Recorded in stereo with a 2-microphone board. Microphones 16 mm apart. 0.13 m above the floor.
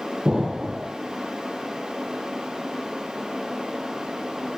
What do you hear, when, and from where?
0.2 s an explosion: 70° right (ahead or behind), 1.0 m